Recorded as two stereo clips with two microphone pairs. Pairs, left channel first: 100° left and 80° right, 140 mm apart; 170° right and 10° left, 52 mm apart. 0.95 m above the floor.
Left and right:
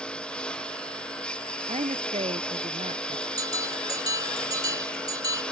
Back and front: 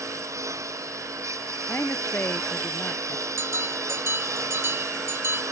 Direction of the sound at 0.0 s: 15° left.